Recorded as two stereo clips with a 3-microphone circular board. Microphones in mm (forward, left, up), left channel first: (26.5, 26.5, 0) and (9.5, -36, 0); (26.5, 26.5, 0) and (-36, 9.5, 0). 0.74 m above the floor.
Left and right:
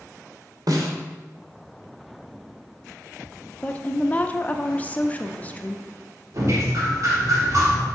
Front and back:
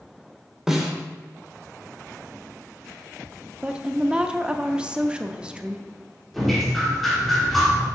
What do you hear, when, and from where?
0.7 s a snare drum: 85° right, 1.3 m
3.6 s a woman speaking: 125° left, 0.5 m
6.3 s dripping: 75° right, 2.5 m